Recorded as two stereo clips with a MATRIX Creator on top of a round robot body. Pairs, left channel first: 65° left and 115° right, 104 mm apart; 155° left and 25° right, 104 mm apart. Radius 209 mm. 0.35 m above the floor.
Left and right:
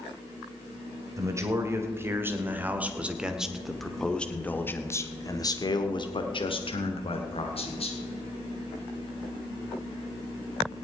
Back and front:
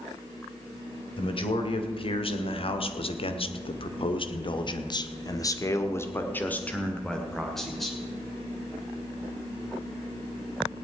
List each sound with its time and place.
1.2 s a man speaking: 170° right, 2.5 m; by 8.0 s 70° left, 2 m